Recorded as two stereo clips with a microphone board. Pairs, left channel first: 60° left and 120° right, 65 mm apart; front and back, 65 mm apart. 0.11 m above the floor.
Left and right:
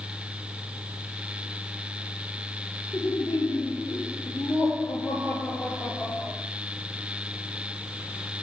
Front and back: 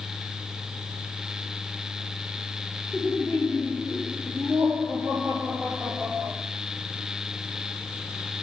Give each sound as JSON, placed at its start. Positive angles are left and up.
{"t": 2.9, "sound": "laughter", "azimuth_deg": 80, "distance_m": 2.5}